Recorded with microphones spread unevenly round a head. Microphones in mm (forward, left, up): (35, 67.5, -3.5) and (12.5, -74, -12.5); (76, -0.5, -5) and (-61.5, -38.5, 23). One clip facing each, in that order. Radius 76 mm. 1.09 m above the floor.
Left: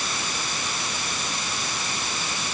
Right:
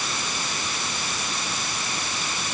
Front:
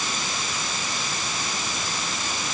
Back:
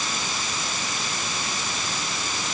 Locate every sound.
Only background noise.